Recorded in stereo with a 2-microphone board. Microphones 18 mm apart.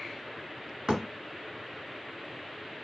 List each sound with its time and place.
0.9 s a thud: 50° right (ahead or behind), 1.1 m